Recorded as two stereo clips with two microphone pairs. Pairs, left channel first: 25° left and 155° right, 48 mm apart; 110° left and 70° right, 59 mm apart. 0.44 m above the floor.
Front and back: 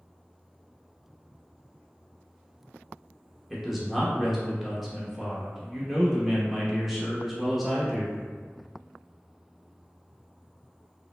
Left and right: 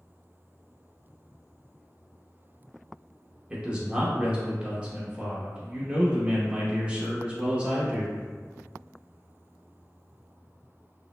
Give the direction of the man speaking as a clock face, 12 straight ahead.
3 o'clock.